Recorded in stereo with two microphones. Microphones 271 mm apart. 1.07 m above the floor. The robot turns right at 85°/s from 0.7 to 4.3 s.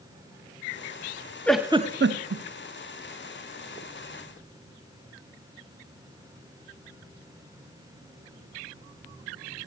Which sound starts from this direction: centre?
A giggle, at 1.5 s.